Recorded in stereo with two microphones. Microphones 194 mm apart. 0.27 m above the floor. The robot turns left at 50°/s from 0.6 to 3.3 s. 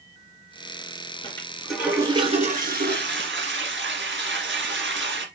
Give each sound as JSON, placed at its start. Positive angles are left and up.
{"t": 1.2, "sound": "a toilet flushing", "azimuth_deg": 20, "distance_m": 2.5}